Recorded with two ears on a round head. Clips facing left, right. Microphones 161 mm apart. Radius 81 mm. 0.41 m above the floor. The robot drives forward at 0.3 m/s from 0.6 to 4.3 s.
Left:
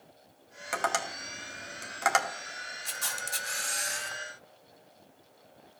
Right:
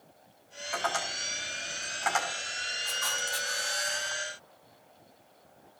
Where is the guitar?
No guitar in this recording.